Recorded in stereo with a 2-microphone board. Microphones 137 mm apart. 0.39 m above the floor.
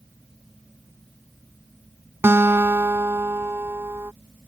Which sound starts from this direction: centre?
A guitar, at 2.2 s.